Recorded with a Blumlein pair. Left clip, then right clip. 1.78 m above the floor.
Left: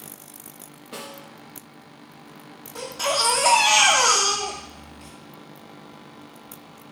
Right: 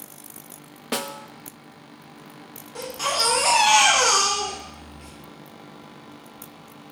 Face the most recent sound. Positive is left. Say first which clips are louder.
# left 1 dB
turn(degrees=0)